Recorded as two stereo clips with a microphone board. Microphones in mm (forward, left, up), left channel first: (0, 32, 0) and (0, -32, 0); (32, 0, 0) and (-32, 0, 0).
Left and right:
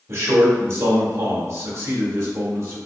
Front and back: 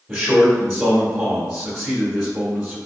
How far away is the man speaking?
About 1.3 m.